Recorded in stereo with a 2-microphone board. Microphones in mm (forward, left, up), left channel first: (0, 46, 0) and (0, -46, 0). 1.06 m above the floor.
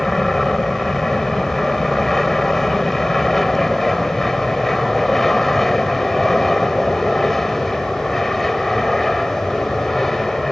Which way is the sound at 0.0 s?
Centre (ahead or behind).